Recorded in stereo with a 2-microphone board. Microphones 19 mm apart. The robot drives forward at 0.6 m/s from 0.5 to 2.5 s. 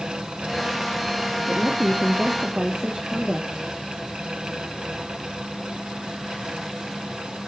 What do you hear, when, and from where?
1.5 s a woman speaking: 75° right (ahead or behind), 1.1 m; by 3.7 s 55° right (ahead or behind), 1.4 m